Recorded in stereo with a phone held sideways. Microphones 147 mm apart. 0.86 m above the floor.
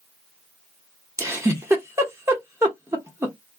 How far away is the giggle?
About 0.9 m.